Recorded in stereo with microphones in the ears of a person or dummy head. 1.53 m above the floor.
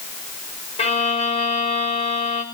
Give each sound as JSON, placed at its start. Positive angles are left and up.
{"t": 0.8, "sound": "a violin", "side_deg": 40, "distance_m": 5.5}